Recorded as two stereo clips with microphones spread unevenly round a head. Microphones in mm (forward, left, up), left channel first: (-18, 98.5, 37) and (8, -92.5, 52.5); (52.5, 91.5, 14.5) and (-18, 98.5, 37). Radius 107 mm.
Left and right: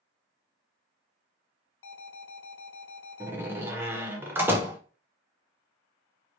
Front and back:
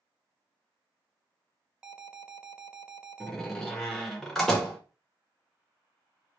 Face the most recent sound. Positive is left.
turn(degrees=-135)